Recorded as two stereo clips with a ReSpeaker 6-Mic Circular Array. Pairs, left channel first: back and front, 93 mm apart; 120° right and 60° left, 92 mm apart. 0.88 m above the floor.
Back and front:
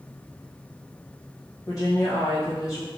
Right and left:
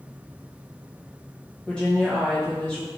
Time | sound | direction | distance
1.7 | a woman speaking | 165° left | 0.7 m